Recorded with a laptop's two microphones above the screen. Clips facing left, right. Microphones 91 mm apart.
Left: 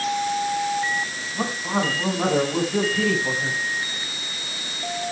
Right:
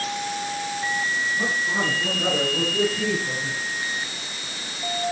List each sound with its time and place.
1.4 s a man speaking: 60° left (ahead or behind), 7.5 m; by 3.6 s 65° left (ahead or behind), 5.5 m